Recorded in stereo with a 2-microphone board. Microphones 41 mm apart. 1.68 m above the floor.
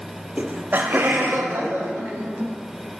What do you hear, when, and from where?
0.4 s laughter: 35° right (ahead or behind), 0.6 m; by 2.5 s 75° right (ahead or behind), 1.8 m